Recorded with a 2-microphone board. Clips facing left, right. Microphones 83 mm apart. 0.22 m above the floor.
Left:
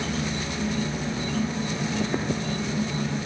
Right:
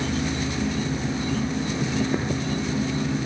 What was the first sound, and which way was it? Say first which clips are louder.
An insect: right 3 dB; 5° right (ahead or behind).